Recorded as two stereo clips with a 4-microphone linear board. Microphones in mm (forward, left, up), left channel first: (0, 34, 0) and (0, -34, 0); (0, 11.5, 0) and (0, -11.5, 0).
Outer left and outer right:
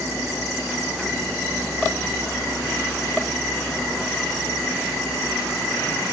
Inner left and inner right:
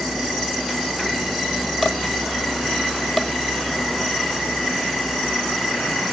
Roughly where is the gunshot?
No gunshot in this recording.